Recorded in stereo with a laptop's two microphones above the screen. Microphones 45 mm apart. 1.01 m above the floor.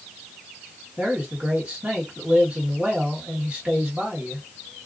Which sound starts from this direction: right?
A man speaking, at 1.0 s.